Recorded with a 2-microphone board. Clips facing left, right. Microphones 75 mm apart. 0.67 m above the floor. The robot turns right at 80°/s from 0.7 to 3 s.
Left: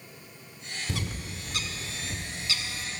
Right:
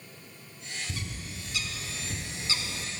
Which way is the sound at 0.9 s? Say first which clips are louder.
Left 4 dB; 80° left.